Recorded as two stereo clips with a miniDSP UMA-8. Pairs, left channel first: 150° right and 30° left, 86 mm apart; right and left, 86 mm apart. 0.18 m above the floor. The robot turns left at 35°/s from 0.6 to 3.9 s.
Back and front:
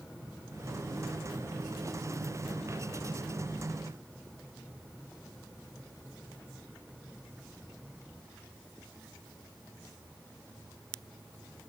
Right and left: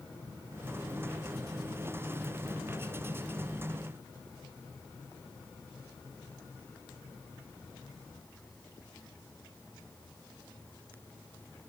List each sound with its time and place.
Only background noise.